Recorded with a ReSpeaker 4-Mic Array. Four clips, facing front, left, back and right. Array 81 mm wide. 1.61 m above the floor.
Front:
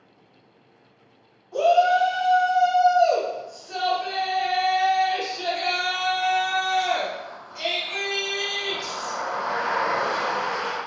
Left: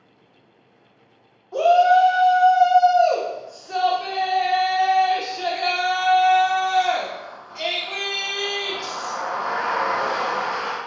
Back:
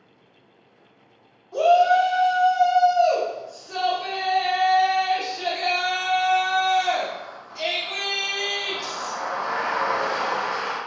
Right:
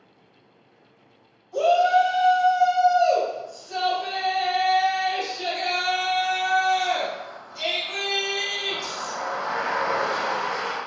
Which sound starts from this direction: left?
A shout, at 1.5 s.